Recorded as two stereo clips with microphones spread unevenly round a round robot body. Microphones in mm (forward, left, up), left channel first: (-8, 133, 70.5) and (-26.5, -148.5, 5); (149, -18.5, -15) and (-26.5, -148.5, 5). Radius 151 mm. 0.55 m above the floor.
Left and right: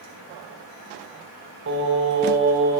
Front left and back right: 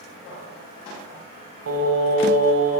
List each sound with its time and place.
1.7 s singing: 130° right, 4 m